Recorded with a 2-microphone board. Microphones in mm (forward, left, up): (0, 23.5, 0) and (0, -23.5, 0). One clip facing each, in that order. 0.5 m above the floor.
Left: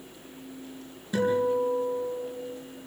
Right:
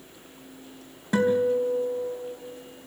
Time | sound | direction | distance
1.1 | a guitar | 70° right (ahead or behind) | 5 m